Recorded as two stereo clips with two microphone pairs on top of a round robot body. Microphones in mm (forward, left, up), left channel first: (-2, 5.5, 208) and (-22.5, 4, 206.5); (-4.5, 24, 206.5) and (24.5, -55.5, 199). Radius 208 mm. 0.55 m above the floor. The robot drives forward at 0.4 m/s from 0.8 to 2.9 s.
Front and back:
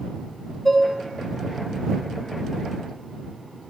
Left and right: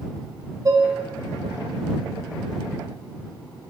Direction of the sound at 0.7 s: 65° right.